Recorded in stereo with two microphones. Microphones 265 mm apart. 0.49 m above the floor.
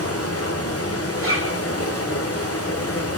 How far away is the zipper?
About 4.5 m.